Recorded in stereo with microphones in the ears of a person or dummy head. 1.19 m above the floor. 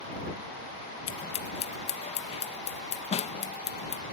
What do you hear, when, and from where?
1.1 s scissors: 40° left (ahead or behind)